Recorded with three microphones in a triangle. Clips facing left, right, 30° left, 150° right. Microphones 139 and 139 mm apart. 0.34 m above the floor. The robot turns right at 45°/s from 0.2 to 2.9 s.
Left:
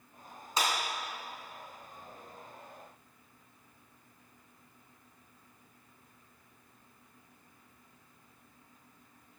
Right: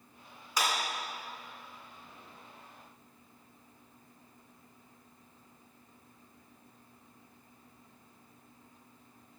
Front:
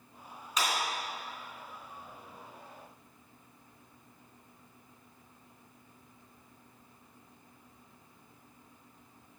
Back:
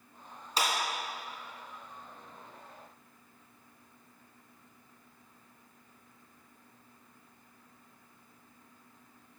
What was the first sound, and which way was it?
A clap, 155° left.